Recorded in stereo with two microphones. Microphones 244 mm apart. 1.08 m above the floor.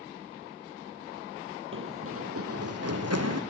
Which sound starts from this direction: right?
Running footsteps, at 1.7 s.